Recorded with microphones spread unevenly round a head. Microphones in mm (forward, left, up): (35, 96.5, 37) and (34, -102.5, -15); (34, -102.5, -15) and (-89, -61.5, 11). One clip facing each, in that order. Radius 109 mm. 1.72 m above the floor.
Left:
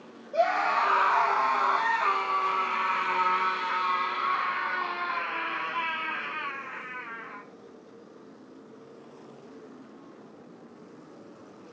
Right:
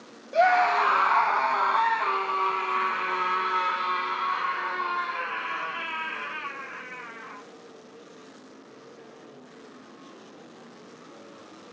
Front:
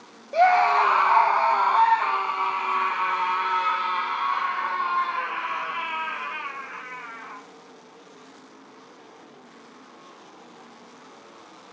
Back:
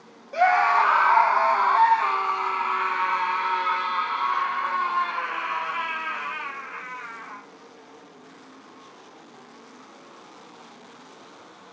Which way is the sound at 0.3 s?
85° right.